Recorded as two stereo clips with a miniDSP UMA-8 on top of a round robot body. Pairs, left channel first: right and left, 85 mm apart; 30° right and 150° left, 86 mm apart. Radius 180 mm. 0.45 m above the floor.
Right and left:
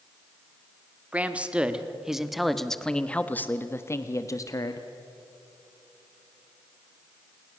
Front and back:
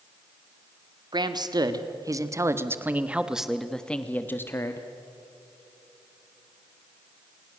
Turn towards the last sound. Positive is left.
turn(degrees=-70)